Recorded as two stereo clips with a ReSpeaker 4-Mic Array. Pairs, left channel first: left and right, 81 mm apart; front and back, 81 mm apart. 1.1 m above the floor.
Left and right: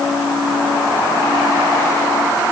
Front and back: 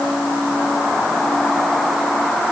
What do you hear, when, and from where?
Only background noise.